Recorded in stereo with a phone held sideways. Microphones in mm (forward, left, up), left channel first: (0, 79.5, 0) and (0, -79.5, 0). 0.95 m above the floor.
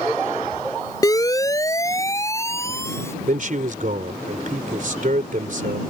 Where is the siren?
25° left (ahead or behind); by 3.1 s 15° left (ahead or behind).